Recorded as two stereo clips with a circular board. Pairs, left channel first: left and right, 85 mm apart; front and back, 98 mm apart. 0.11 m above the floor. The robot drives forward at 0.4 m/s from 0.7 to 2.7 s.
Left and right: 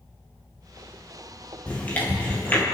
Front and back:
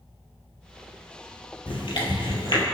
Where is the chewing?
20° left, 3 m; by 2.7 s 25° left, 3 m.